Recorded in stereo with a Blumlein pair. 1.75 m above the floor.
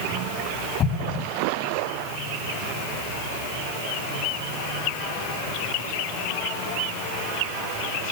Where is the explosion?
30° left, 1.9 m.